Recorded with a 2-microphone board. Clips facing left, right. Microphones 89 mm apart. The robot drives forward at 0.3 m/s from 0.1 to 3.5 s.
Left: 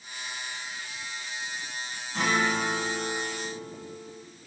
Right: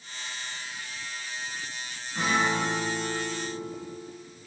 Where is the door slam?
No door slam in this recording.